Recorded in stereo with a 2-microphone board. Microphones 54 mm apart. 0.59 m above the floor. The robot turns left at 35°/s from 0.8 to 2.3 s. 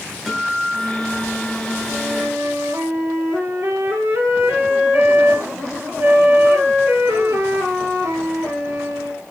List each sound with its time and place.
0.3 s a guitar: straight ahead, 7 m; by 2.2 s 50° right, 7 m
1.9 s a flute: 70° right (ahead or behind), 5 m; by 9.2 s 55° right (ahead or behind), 5 m